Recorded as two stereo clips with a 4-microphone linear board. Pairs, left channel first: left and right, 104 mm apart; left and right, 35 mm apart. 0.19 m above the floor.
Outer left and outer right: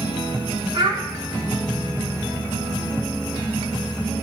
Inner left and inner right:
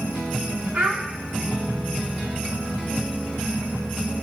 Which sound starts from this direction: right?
A child speaking, at 0.7 s.